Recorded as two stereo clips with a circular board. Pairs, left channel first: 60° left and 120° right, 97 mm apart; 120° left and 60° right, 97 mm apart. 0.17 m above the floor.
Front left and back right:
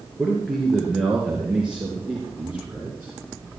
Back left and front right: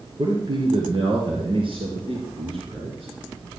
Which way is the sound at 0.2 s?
25° right.